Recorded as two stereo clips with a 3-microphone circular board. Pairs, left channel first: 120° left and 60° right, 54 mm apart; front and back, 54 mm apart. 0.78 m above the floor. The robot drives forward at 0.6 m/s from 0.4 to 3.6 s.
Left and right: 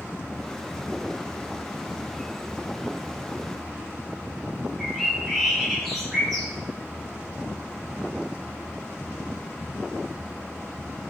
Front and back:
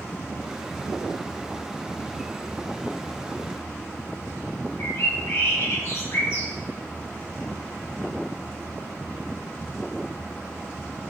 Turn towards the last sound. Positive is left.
turn(degrees=35)